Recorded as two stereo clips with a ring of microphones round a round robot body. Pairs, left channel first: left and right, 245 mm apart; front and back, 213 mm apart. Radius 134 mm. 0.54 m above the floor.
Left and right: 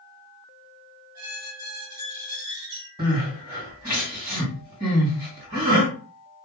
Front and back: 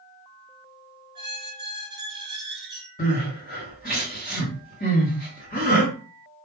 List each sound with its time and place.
1.1 s a squeak: 105° right, 1.0 m
3.0 s crying: 25° right, 1.7 m